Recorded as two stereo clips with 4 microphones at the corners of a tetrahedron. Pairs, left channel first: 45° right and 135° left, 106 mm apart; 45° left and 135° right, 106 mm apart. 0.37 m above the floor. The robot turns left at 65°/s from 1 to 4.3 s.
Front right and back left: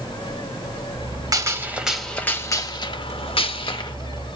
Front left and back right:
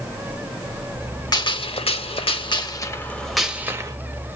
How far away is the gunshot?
About 0.6 m.